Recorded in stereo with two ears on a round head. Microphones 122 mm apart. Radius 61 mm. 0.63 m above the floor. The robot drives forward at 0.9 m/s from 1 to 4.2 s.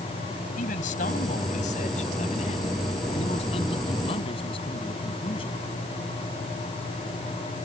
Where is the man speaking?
65° left (ahead or behind); by 5.6 s 45° left (ahead or behind).